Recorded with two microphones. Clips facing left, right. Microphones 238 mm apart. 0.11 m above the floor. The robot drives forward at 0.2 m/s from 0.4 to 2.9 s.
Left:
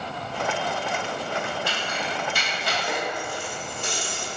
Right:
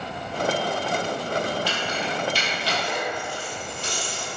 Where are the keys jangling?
60° left (ahead or behind), 1.7 m; by 4.3 s 55° left (ahead or behind), 1.8 m.